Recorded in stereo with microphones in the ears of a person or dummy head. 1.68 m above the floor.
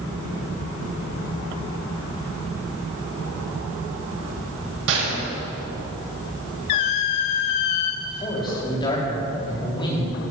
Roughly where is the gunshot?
Right.